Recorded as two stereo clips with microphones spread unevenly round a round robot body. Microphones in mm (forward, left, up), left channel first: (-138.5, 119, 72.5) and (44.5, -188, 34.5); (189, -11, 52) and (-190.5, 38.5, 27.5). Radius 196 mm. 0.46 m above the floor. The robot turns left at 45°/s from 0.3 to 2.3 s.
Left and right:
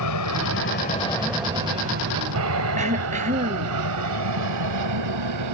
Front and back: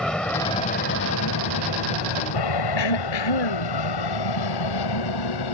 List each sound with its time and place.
0.0 s an aircraft: 80° left; by 5.5 s 30° right
2.8 s throat clearing: 15° left